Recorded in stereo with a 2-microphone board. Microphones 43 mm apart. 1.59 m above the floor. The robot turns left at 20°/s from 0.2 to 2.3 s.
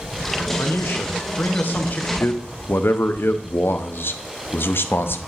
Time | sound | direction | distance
0.6 | a man speaking | 75° left | 1.0 m
2.2 | a man speaking | 60° left (ahead or behind) | 0.6 m